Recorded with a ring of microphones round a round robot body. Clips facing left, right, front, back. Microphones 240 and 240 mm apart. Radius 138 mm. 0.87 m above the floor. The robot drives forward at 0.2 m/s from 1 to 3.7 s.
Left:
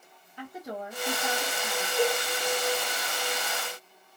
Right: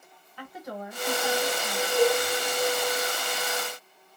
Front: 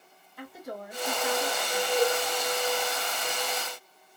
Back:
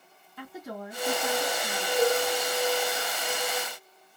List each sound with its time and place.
0.4 s a woman speaking: 165° left, 1.8 m
2.0 s dishes clattering: 10° left, 0.9 m; by 2.2 s 15° left, 0.8 m